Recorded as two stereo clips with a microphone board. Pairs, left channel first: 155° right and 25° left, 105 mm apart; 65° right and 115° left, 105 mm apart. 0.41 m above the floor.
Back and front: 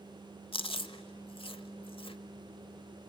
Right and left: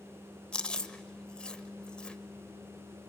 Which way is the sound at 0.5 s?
145° right.